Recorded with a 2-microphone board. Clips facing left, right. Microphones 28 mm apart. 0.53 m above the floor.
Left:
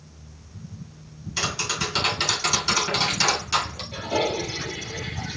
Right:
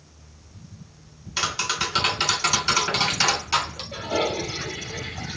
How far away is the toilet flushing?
About 2 m.